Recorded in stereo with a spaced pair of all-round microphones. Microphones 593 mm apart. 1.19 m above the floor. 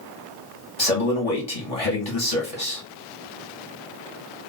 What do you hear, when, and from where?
0.8 s a man speaking: 70° left (ahead or behind), 2 m